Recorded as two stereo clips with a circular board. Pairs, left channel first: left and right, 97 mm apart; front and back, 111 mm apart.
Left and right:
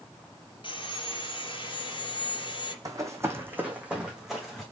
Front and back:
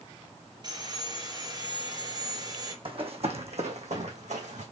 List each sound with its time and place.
0.6 s sawing: 125° left, 2.5 m
2.9 s running footsteps: 145° right, 1.5 m; by 4.6 s straight behind, 2 m